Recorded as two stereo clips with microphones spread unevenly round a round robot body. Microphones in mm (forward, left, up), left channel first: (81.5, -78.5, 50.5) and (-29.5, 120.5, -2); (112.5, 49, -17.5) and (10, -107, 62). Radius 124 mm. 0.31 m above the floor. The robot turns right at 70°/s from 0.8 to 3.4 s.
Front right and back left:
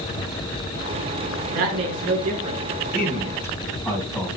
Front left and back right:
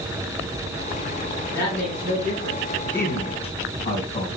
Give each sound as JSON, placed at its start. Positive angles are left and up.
{"t": 1.5, "sound": "a woman speaking", "azimuth_deg": 120, "distance_m": 4.0}
{"t": 2.9, "sound": "a man speaking", "azimuth_deg": -10, "distance_m": 3.0}